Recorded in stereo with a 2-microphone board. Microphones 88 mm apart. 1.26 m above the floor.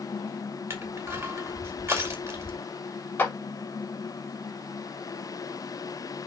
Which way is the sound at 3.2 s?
20° left (ahead or behind).